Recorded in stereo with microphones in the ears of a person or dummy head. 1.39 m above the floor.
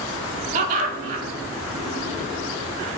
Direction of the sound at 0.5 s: 35° right (ahead or behind).